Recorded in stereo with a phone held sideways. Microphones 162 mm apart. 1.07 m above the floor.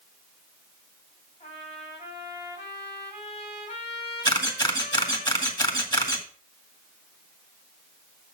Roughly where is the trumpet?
Left.